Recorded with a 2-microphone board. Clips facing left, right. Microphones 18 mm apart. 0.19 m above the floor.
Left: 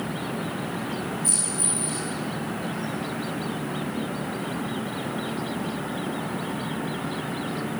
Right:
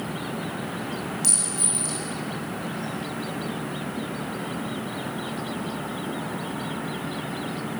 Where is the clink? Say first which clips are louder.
Right 3 dB; 80° right, 9.5 m.